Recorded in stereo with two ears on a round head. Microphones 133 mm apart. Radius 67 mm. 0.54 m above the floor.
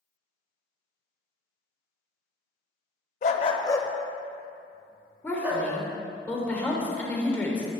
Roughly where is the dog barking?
Left.